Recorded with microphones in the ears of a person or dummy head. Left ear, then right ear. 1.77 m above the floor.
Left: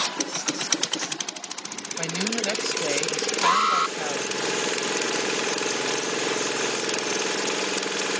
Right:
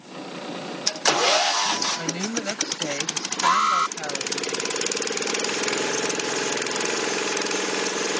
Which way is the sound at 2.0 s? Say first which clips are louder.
Left 1 dB; 20° left (ahead or behind).